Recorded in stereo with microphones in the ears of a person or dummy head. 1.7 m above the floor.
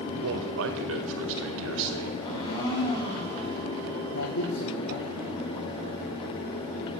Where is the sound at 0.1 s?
70° right (ahead or behind), 1.6 m.